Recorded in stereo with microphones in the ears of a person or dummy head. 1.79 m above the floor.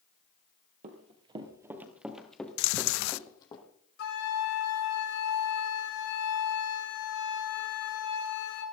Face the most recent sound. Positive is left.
turn(degrees=75)  # may be behind; listen again after turning